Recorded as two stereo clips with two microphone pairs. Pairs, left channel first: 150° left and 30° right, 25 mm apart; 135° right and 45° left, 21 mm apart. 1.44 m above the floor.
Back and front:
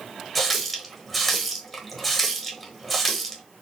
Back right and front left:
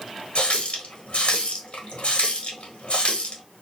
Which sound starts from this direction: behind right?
A running tap, at 0.3 s.